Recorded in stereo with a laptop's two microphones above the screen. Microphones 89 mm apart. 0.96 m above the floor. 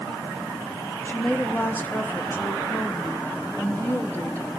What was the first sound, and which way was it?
A woman speaking, 25° left (ahead or behind).